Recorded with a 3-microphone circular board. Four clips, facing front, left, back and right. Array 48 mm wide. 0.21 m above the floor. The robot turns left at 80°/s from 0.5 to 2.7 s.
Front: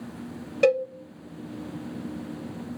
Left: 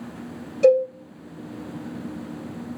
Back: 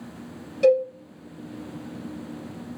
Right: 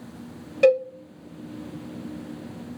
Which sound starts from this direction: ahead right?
A cowbell, at 0.6 s.